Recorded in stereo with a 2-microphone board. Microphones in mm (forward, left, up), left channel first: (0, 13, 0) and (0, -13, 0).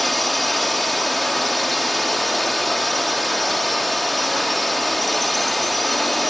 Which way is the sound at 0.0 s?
Centre (ahead or behind).